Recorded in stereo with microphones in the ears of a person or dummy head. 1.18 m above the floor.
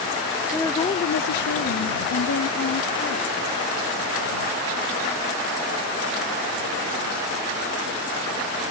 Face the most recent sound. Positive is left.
turn(degrees=85)